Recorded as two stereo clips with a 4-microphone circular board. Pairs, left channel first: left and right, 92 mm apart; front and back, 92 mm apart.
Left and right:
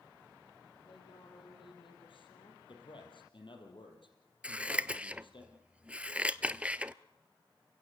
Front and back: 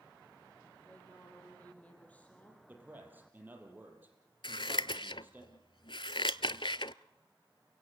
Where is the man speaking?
110° left, 5 m.